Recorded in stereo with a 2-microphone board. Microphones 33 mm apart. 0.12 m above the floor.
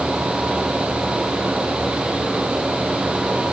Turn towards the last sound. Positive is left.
No sound to turn to.